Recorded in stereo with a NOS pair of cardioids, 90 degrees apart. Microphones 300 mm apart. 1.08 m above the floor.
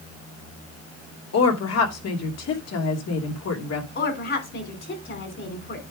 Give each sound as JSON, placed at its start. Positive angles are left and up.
{"t": 1.3, "sound": "a woman speaking", "azimuth_deg": 60, "distance_m": 2.5}
{"t": 4.0, "sound": "a woman speaking", "azimuth_deg": 40, "distance_m": 3.0}